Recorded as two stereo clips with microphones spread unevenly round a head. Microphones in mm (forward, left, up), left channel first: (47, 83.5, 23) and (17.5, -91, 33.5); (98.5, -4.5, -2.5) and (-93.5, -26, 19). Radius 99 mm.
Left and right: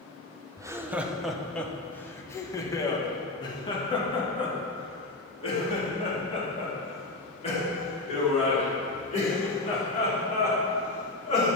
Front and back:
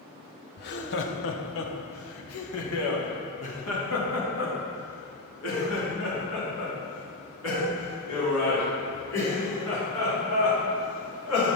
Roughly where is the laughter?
Ahead right.